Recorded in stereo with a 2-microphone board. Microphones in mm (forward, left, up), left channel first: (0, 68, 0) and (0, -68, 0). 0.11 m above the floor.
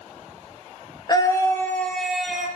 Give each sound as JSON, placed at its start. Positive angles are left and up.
{"t": 1.1, "sound": "a scream", "side_deg": 30, "distance_m": 1.4}